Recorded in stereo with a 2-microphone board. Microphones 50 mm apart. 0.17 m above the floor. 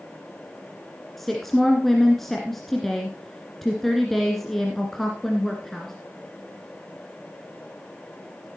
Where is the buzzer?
No buzzer in this recording.